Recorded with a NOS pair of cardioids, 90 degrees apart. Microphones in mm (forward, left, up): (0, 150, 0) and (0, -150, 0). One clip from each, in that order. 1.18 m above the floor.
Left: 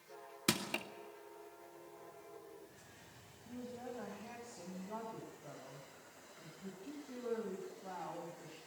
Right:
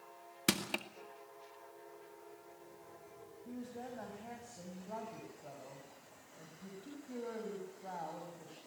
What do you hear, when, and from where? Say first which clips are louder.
0.5 s crushing: right 2 dB; 20° right, 2 m
3.5 s a woman speaking: even; 30° right, 7.5 m